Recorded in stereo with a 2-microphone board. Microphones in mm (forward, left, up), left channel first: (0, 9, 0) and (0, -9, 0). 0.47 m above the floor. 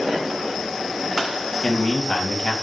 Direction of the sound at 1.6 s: 60° left (ahead or behind).